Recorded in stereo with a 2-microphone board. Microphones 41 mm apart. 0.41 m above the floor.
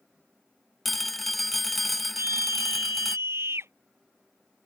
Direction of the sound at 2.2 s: 85° right.